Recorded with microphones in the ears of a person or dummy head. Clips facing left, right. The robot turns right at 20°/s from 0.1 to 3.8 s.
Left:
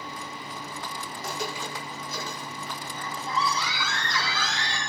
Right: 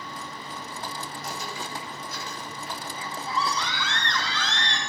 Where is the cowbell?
I don't hear a cowbell.